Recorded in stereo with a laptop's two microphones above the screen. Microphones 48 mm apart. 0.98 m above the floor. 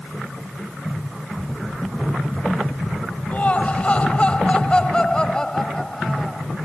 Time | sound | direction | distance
3.3 | laughter | 35° left (ahead or behind) | ?